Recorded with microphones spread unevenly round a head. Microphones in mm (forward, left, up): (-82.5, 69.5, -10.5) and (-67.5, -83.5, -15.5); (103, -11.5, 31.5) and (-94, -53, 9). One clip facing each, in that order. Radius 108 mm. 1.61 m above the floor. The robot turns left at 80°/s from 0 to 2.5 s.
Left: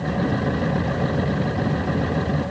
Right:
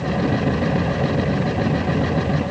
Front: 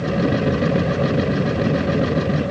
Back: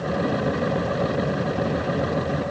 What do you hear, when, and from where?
Only background noise.